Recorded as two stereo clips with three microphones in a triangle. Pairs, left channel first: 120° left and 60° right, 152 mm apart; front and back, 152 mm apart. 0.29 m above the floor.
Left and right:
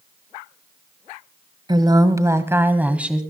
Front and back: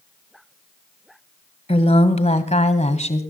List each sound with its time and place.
1.7 s a woman speaking: 15° right, 1.6 m; by 3.2 s 25° left, 2.0 m